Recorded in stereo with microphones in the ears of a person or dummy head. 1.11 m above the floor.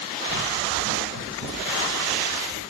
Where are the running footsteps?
55° right (ahead or behind), 3.5 m; by 2.6 s 60° right (ahead or behind), 5.5 m.